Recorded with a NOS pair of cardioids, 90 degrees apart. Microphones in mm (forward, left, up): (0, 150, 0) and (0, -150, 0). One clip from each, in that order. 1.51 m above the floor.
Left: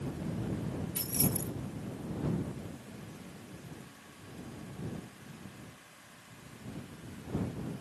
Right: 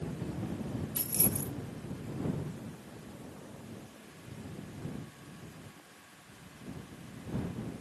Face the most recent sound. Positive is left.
turn(degrees=-10)